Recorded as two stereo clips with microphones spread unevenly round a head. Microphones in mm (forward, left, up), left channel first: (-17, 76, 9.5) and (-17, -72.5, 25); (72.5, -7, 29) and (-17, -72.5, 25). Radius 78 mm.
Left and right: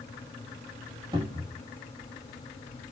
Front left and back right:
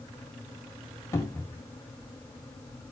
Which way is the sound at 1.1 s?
25° right.